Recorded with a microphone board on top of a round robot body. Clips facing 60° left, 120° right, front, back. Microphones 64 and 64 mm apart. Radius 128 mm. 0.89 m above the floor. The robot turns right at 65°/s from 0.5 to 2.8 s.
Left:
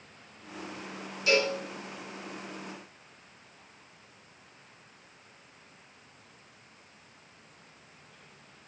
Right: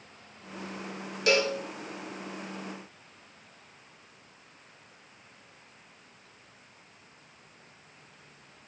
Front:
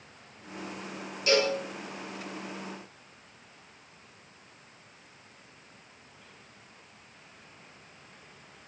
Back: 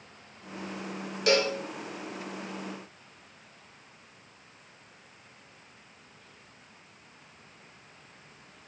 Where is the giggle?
I don't hear a giggle.